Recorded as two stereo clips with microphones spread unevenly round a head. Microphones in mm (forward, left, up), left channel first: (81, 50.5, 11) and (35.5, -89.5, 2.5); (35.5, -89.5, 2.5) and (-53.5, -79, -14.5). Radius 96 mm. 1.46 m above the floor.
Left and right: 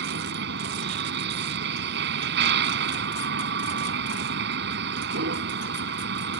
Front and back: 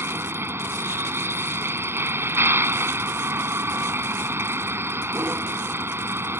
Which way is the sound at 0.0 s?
120° right.